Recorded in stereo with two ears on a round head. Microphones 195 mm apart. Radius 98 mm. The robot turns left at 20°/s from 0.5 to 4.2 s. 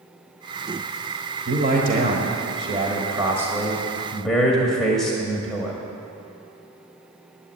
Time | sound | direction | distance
1.5 | a man speaking | 130° right | 1.4 m